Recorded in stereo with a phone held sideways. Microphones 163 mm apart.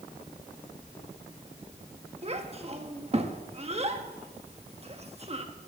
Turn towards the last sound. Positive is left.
turn(degrees=-40)  # may be behind; listen again after turning